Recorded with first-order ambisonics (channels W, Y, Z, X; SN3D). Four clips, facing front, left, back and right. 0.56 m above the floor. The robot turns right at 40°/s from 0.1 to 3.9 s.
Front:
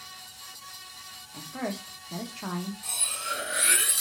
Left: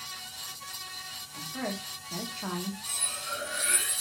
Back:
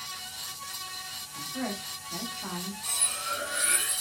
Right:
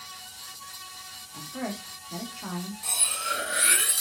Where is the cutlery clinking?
90° right, 0.5 m; by 4.0 s 50° right, 0.5 m.